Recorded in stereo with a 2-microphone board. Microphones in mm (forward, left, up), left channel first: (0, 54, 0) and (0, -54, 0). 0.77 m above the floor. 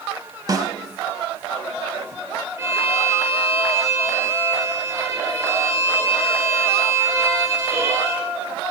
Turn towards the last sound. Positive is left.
turn(degrees=-25)  # may be behind; listen again after turning